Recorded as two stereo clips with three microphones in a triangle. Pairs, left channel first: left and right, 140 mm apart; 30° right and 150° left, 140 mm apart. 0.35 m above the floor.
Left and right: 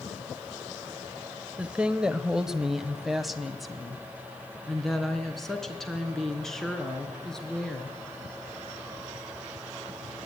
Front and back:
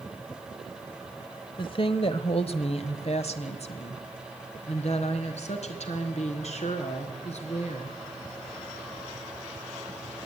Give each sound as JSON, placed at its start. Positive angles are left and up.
{"t": 1.6, "sound": "a woman speaking", "azimuth_deg": -15, "distance_m": 1.1}